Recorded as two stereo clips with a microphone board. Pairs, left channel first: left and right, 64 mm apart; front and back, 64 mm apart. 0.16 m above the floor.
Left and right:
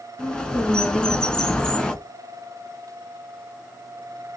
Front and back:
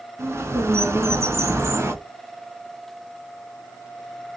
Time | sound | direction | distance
0.2 | a bird | 165° left | 0.7 m